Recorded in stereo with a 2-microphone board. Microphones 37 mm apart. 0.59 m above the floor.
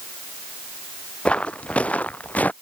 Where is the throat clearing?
No throat clearing in this recording.